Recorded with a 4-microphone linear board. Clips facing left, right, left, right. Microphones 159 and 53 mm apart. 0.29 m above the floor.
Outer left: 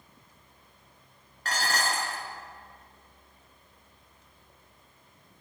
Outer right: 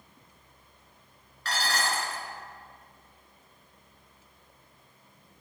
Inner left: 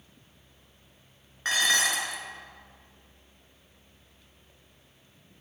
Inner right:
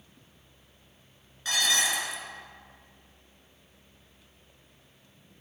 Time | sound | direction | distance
1.4 | dishes clattering | 45° left (ahead or behind) | 2 m